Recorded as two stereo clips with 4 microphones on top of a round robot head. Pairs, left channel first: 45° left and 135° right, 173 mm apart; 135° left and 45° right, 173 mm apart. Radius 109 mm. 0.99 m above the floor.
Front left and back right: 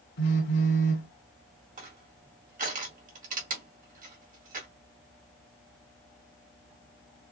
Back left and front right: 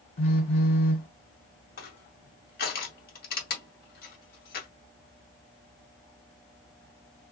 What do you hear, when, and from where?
0.2 s a phone buzzing: 80° left, 1.8 m
1.8 s crushing: 175° left, 1.9 m